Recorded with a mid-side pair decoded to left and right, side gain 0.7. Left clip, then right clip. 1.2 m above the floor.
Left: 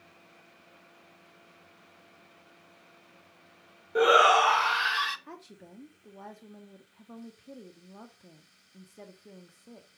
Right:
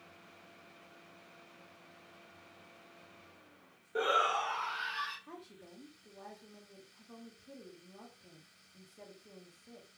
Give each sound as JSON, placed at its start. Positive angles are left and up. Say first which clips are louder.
{"t": 4.0, "sound": "a shout", "louder": "left 11 dB", "azimuth_deg": 25, "distance_m": 0.6}
{"t": 5.3, "sound": "a woman speaking", "louder": "left 4 dB", "azimuth_deg": 30, "distance_m": 1.9}